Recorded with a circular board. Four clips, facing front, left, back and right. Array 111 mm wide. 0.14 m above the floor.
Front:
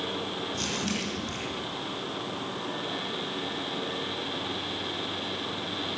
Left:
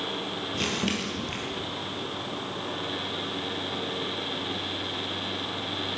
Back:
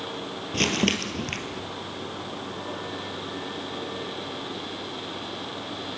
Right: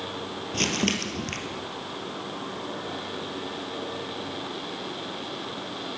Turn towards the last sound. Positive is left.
turn(degrees=-160)